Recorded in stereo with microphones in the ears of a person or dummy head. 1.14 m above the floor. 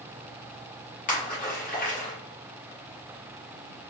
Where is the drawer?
I don't hear a drawer.